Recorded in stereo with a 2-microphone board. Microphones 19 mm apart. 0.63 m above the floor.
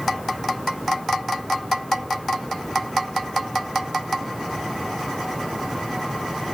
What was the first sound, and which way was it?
Only background noise.